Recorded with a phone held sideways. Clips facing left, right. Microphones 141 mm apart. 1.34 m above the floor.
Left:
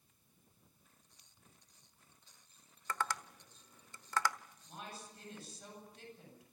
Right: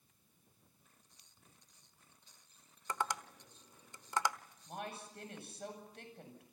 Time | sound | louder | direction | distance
2.9 | tapping | right 1 dB | 20° right (ahead or behind) | 1.0 m
4.7 | a woman speaking | right 5 dB | 60° right (ahead or behind) | 8.5 m